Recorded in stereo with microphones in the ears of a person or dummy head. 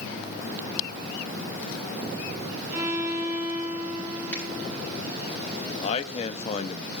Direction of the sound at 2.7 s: 15° right (ahead or behind).